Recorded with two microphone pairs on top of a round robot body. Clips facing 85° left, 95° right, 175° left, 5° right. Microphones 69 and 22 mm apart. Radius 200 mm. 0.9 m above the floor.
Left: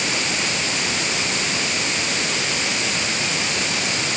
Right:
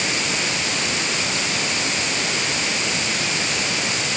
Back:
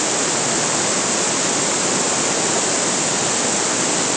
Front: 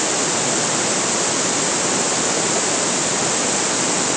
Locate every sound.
Only background noise.